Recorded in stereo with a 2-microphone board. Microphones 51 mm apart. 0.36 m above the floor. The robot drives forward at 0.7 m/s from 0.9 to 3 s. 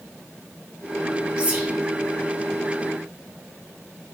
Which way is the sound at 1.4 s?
20° right (ahead or behind).